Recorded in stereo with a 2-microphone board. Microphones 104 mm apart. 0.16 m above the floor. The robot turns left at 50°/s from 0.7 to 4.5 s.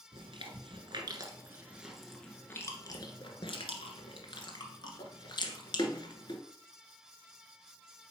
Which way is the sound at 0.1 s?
50° right (ahead or behind).